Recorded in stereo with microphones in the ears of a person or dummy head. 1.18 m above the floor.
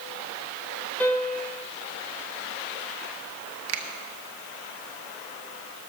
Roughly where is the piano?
Centre.